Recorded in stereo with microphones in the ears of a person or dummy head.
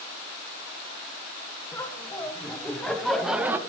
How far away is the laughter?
About 2 m.